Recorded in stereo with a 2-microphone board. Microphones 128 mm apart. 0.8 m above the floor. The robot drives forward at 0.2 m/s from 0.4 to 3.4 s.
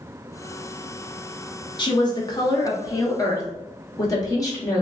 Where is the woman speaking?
35° left (ahead or behind), 0.9 m; by 4.8 s 30° left (ahead or behind), 1.2 m.